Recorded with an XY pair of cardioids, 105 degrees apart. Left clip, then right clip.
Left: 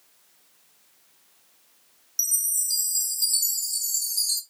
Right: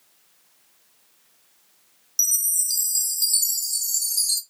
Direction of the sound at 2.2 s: 25° right.